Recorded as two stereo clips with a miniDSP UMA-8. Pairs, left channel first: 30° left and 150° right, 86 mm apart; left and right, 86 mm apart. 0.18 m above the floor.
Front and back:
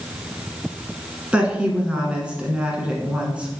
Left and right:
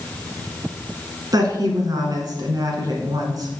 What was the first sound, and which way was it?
A woman speaking, 75° right.